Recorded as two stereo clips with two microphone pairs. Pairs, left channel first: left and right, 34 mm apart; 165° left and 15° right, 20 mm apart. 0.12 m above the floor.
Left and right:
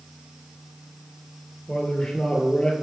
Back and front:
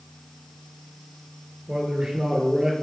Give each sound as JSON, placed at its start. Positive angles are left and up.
{"t": 1.7, "sound": "a man speaking", "azimuth_deg": 30, "distance_m": 2.5}